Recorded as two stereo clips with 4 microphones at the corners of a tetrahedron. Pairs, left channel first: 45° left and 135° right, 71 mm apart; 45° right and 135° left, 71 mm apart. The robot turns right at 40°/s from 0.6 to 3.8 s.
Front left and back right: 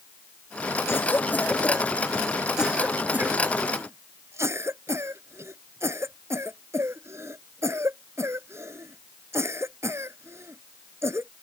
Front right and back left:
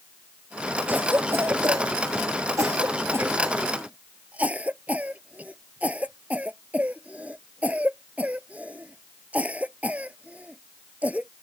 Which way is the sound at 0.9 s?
80° left.